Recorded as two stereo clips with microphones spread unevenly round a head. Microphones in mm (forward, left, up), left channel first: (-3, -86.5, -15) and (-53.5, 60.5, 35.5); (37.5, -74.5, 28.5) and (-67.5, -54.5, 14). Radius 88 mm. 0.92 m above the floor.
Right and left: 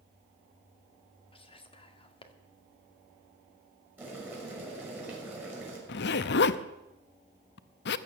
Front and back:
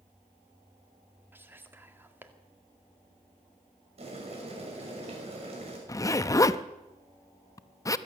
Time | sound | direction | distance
1.3 | whispering | 120° right | 2.0 m
4.0 | boiling | 170° right | 6 m
5.9 | a zipper | 75° right | 0.6 m